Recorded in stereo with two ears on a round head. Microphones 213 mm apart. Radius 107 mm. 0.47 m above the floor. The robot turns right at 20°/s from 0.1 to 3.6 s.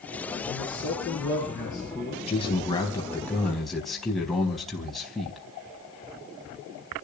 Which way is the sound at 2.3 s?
25° left (ahead or behind).